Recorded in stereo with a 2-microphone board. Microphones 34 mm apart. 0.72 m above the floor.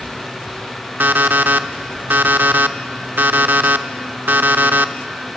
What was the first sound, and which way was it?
An alarm clock, 80° right.